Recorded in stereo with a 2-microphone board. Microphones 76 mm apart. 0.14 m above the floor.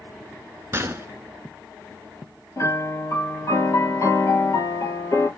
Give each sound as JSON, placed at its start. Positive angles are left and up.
{"t": 0.7, "sound": "a gunshot", "side_deg": -30, "distance_m": 0.7}
{"t": 2.6, "sound": "a piano", "side_deg": 45, "distance_m": 1.8}